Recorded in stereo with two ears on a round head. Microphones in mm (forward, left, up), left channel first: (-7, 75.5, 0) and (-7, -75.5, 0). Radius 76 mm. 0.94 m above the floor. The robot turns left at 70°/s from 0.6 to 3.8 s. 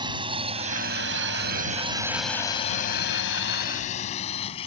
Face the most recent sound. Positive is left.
turn(degrees=35)  # may be behind; listen again after turning